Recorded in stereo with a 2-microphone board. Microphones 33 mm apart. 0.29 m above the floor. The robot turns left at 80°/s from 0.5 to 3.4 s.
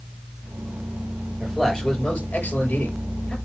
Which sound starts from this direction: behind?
A man speaking, at 1.4 s.